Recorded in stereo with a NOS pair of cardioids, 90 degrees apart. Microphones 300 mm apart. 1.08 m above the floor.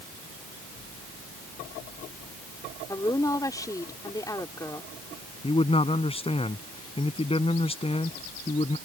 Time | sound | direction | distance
2.9 | a woman speaking | 10° left | ?
5.4 | a man speaking | 20° left | ?